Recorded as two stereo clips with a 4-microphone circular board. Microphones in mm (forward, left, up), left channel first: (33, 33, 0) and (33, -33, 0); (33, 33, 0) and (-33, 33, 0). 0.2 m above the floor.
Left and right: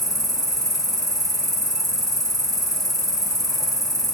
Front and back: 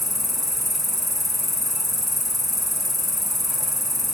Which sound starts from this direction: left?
An insect, at 0.0 s.